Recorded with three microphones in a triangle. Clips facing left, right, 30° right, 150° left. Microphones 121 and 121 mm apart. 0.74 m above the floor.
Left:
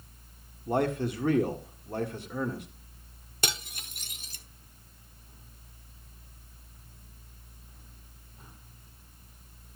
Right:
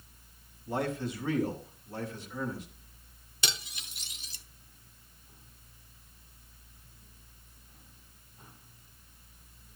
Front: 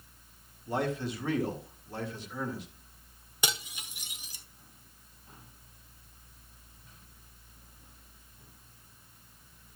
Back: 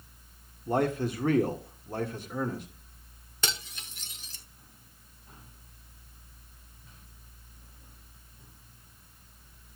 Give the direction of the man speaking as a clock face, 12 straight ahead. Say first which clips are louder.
Left 5 dB, back 4 dB; 8 o'clock.